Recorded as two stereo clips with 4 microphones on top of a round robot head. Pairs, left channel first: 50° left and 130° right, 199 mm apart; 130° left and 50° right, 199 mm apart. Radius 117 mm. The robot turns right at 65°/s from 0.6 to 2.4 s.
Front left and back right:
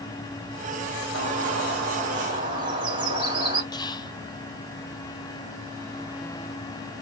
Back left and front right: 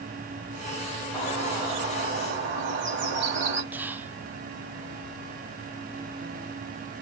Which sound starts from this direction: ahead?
Whispering, at 3.7 s.